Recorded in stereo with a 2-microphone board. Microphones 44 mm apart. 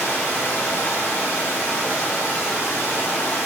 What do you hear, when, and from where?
0.0 s running water: 75° left (ahead or behind), 4 m